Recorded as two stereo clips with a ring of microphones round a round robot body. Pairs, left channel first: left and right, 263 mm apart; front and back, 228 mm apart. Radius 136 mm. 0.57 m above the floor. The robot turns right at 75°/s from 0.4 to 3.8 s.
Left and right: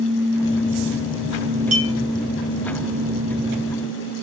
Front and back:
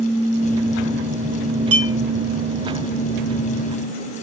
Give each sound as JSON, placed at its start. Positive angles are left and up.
{"t": 1.7, "sound": "a clink", "azimuth_deg": -150, "distance_m": 2.0}